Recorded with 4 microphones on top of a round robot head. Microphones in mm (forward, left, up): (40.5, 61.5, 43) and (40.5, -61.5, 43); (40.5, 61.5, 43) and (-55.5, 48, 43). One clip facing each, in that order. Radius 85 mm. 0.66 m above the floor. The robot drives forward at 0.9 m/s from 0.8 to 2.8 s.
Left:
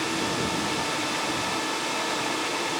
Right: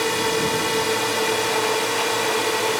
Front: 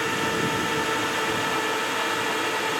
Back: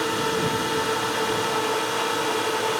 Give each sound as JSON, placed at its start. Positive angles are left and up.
{"t": 0.0, "sound": "a drone", "azimuth_deg": -100}